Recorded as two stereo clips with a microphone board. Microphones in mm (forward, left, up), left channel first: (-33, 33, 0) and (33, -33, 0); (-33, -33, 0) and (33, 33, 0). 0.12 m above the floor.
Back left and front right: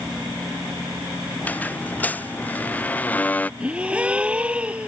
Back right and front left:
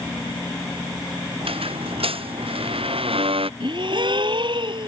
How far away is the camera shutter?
No camera shutter in this recording.